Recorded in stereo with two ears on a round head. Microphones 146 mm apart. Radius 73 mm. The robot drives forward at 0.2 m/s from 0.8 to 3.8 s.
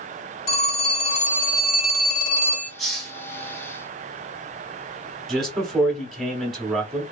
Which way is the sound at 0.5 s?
55° left (ahead or behind).